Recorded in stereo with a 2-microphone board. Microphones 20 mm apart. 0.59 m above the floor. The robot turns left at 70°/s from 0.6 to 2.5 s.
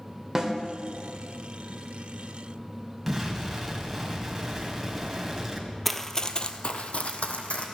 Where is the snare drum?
25° right (ahead or behind), 1.8 m.